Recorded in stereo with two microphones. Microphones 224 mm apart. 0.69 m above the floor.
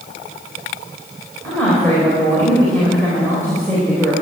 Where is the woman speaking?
5° left (ahead or behind), 3.5 m.